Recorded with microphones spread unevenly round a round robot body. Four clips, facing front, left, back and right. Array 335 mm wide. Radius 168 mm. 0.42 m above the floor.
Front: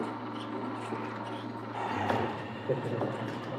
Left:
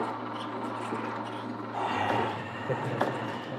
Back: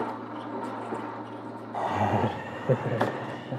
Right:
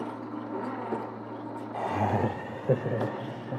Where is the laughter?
70° right, 0.7 m; by 3.6 s 160° right, 2 m.